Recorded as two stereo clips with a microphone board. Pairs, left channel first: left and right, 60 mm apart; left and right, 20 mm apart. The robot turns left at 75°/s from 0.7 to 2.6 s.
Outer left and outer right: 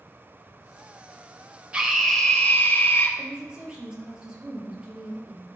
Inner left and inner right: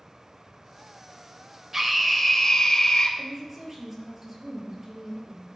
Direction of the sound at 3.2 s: 15° right (ahead or behind).